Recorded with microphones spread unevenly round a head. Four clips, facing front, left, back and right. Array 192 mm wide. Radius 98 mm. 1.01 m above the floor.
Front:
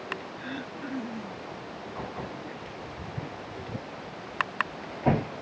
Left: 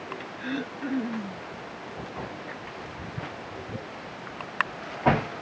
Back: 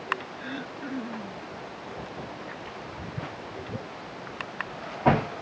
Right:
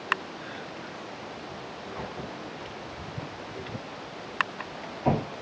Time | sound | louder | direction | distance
0.4 | throat clearing | left 7 dB, back 1 dB | 85° left | ?